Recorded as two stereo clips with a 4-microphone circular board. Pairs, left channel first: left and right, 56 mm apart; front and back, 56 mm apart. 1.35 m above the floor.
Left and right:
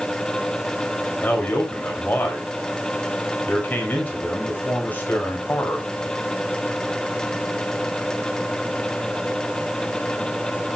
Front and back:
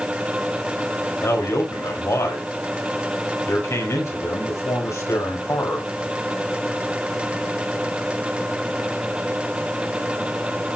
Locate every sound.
1.2 s a man speaking: 30° left, 6 m